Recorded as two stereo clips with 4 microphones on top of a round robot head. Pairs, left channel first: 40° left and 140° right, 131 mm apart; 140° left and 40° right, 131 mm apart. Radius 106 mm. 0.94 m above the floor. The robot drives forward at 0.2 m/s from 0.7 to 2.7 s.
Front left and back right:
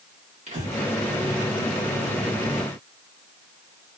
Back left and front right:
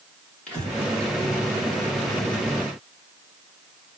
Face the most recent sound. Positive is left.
turn(degrees=-145)